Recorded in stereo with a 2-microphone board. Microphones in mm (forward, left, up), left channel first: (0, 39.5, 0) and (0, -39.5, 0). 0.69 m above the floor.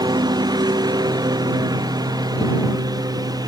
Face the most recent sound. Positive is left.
turn(degrees=-50)  # may be behind; listen again after turning